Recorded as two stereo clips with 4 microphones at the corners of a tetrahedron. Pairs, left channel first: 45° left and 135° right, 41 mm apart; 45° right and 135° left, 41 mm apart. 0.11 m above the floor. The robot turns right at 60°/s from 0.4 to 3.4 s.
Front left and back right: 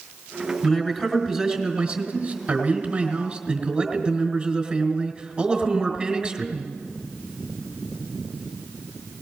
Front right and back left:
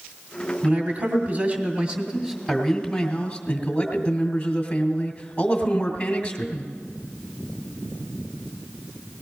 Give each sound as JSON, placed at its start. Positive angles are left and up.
{"t": 0.6, "sound": "a man speaking", "azimuth_deg": 95, "distance_m": 2.0}